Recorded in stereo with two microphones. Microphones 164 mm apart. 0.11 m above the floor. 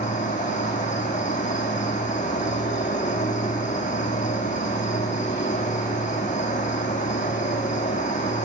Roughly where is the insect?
Left.